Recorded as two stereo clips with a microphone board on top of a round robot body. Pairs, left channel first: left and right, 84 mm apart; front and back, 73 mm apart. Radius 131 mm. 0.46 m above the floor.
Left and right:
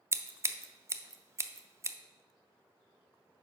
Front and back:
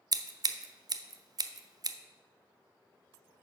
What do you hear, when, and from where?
0.1 s scissors: 145° right, 0.6 m